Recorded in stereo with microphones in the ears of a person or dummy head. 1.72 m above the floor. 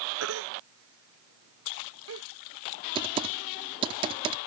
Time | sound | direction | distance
0.2 | a baby crying | 75° right (ahead or behind) | ?
3.0 | typing on a keyboard | 25° right (ahead or behind) | ?